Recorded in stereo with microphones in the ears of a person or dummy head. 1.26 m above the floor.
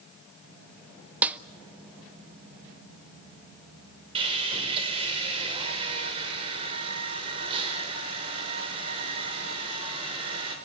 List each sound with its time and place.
1.2 s a snare drum: 5° right (ahead or behind), 0.7 m
4.2 s sawing: 25° right (ahead or behind), 5.5 m